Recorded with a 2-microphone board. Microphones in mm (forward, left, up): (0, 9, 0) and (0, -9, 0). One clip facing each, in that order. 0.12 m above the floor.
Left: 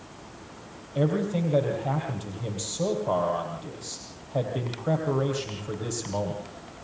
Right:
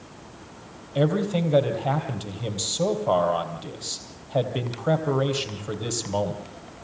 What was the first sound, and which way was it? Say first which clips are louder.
A man speaking: right 3 dB; 35° right (ahead or behind).